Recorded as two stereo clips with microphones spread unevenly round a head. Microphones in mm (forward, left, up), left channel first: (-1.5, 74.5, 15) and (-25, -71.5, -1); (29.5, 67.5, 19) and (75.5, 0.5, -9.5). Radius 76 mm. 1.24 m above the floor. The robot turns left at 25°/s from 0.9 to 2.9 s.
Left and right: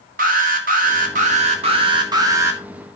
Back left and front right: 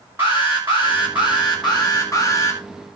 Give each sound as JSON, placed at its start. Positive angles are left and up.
{"t": 0.2, "sound": "an alarm", "azimuth_deg": -135, "distance_m": 2.0}